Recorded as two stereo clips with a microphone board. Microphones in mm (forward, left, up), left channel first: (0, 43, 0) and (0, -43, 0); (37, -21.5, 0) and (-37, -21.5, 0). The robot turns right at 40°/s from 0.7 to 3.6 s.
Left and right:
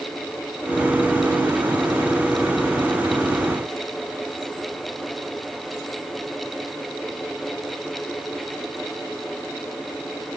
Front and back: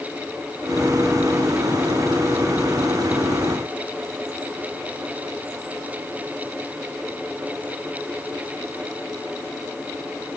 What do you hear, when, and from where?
Only background noise.